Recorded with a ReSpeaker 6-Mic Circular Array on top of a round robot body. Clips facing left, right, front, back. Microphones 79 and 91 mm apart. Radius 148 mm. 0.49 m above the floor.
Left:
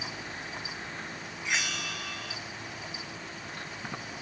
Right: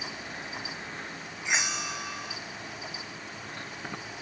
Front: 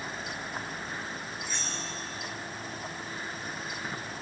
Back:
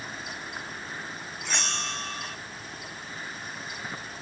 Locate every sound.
1.4 s a bell: 160° right